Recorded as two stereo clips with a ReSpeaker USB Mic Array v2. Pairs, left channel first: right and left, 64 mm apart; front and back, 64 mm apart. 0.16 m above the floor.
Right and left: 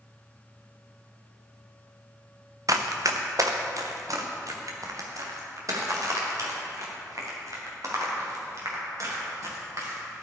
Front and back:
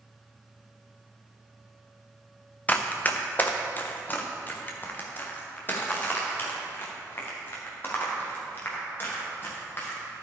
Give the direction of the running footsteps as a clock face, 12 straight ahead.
10 o'clock.